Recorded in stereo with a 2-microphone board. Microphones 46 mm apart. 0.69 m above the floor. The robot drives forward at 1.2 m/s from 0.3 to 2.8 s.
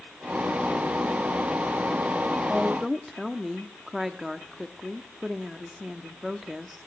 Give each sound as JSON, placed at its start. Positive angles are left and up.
{"t": 2.5, "sound": "a woman speaking", "side_deg": -5, "distance_m": 0.7}